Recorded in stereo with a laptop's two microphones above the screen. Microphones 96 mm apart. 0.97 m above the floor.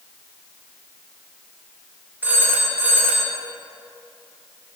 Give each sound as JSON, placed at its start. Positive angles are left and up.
{"t": 2.2, "sound": "a phone ringing", "side_deg": -20, "distance_m": 1.6}